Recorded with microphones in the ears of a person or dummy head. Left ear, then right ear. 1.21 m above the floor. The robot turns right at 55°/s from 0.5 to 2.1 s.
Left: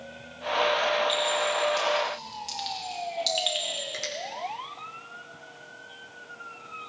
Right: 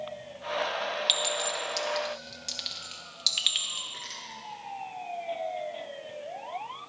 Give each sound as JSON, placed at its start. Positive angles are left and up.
{"t": 1.1, "sound": "a clink", "side_deg": -75, "distance_m": 1.5}
{"t": 3.9, "sound": "a finger snap", "side_deg": 90, "distance_m": 3.5}